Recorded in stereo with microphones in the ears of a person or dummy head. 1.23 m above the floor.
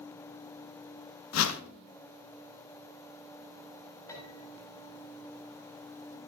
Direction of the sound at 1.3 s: 80° left.